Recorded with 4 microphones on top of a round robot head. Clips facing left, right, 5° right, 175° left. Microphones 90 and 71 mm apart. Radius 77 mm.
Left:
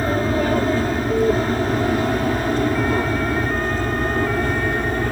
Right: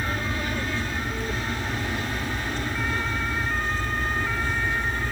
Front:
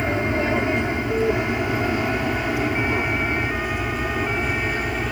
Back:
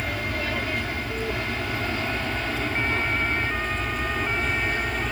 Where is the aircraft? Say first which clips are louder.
Left 10 dB, front 7 dB; 55° left; by 5.1 s 70° left.